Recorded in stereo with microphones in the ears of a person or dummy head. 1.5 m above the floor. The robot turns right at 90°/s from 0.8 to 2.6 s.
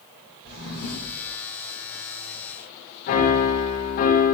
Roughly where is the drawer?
Behind left.